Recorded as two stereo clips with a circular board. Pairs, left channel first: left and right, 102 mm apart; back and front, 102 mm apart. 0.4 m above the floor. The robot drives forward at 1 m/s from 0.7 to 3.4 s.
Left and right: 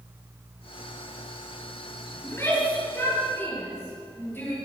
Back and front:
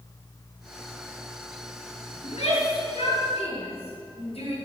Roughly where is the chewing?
No chewing in this recording.